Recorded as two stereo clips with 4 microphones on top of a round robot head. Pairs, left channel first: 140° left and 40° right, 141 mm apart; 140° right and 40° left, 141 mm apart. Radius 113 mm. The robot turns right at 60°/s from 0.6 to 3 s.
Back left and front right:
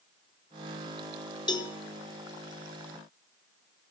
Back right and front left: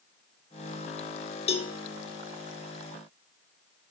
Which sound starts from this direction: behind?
A cowbell, at 1.5 s.